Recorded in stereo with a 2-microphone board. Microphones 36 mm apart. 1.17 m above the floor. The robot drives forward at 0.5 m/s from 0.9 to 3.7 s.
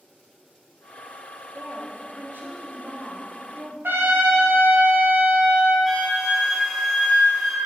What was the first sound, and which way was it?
A woman speaking, 55° right (ahead or behind).